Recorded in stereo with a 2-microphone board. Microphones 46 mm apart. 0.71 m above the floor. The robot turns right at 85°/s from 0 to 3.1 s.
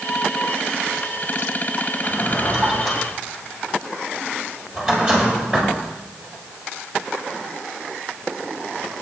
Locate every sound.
2.0 s a drawer: 80° left, 7.5 m; by 5.7 s 10° right (ahead or behind), 7.5 m